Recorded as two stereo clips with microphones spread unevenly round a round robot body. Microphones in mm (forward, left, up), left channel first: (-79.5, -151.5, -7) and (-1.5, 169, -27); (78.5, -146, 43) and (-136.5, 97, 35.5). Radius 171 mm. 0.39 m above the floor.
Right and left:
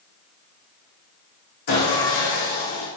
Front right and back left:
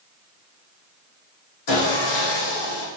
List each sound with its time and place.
1.7 s sawing: 65° right, 5.5 m